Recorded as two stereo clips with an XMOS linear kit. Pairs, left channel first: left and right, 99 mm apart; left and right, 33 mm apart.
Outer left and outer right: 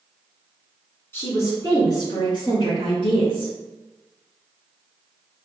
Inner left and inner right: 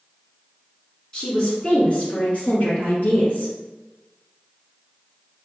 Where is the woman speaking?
25° left (ahead or behind), 1.5 m; by 3.5 s 65° left (ahead or behind), 3 m.